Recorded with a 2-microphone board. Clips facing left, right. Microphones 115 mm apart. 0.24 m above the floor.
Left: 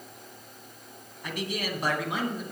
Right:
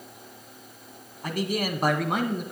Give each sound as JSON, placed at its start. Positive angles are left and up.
{"t": 1.2, "sound": "a man speaking", "side_deg": -45, "distance_m": 2.0}